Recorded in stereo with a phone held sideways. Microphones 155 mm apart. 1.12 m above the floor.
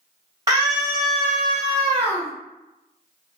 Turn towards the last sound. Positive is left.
turn(degrees=25)  # may be behind; listen again after turning